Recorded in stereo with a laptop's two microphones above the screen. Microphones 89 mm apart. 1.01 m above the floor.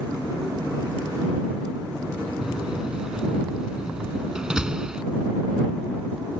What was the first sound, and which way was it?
A door slam, 10° right (ahead or behind).